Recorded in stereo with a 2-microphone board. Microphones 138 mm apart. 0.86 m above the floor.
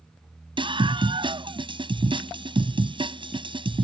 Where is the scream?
40° right (ahead or behind).